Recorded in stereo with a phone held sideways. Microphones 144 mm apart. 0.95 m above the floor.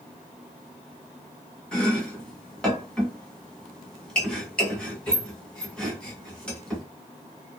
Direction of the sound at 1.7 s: 5° left (ahead or behind).